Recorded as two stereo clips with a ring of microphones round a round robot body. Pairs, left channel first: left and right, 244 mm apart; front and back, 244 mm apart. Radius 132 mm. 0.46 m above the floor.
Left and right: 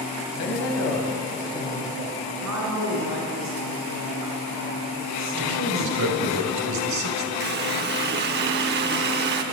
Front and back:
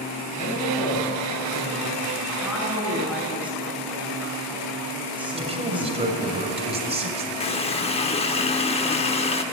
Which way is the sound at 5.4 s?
115° right.